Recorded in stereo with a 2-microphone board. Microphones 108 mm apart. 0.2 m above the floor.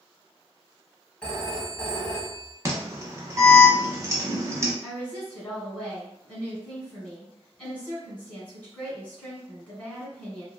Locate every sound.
1.2 s a phone ringing: 10° left (ahead or behind), 0.7 m
2.6 s an alarm: 30° right (ahead or behind), 0.8 m
4.8 s a woman speaking: 10° left (ahead or behind), 1.7 m